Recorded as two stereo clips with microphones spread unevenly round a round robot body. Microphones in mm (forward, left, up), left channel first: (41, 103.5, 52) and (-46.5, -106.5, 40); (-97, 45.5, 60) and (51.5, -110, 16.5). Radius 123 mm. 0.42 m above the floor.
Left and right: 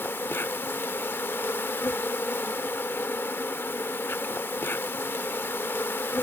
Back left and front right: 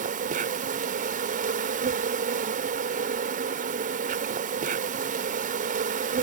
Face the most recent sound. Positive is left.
turn(degrees=-15)